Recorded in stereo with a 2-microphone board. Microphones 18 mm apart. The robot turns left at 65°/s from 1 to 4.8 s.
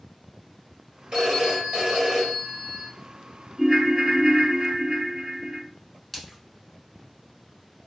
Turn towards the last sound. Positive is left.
turn(degrees=10)  # may be behind; listen again after turning